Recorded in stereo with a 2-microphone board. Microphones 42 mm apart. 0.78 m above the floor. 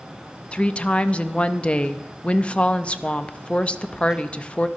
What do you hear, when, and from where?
0.5 s a woman speaking: 25° left (ahead or behind), 0.6 m